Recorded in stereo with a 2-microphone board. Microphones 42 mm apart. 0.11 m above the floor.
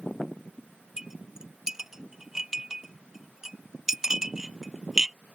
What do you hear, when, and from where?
1.0 s a clink: 10° right (ahead or behind)